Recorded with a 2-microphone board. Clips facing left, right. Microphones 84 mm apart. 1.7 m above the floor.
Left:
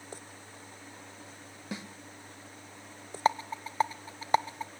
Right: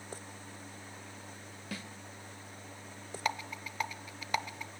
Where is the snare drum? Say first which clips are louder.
Left 3 dB; 20° left (ahead or behind), 1.1 m.